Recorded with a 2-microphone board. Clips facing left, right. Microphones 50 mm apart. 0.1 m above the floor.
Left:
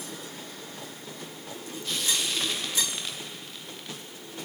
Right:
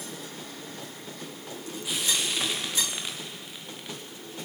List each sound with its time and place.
1.8 s frying: 10° right (ahead or behind), 5 m